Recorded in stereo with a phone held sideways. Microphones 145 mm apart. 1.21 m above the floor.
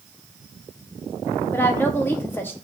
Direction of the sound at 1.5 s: 15° left (ahead or behind).